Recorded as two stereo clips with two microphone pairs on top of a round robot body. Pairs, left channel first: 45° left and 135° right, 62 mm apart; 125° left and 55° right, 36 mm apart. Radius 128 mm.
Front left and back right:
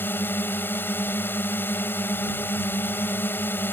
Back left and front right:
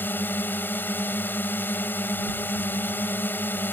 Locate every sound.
0.0 s a drone: 100° left